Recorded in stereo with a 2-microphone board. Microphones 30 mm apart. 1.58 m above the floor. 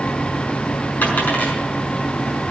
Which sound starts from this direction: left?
A dropped coin, at 1.0 s.